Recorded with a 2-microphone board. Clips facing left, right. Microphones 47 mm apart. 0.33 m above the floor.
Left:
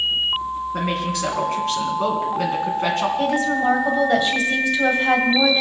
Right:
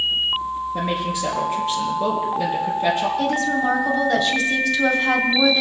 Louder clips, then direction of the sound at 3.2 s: Left 1 dB; 25° left (ahead or behind).